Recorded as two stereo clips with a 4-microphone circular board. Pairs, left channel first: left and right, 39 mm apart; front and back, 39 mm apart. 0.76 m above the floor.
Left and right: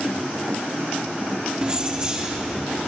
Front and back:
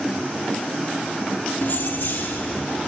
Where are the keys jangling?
25° right, 0.8 m; by 2.8 s 20° right, 1.8 m.